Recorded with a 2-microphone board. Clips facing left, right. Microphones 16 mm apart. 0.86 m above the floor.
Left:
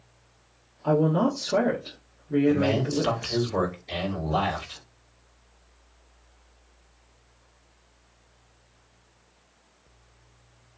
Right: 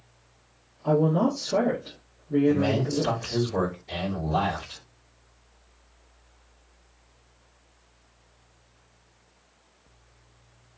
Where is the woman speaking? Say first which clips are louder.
Even; 50° left (ahead or behind), 1.6 m.